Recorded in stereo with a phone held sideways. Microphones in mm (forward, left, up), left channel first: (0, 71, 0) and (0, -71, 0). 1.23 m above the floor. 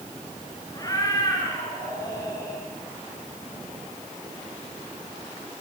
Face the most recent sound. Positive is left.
turn(degrees=25)  # may be behind; listen again after turning